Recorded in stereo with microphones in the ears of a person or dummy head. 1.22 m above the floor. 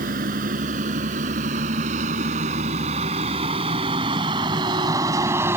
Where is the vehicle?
50° right (ahead or behind); by 5.6 s 15° right (ahead or behind).